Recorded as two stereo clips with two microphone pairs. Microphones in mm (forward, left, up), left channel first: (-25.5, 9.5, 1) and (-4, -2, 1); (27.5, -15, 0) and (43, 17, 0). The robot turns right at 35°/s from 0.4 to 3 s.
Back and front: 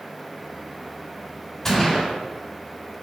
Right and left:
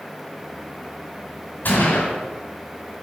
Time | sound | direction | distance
1.6 | a gunshot | 140° right | 3.5 m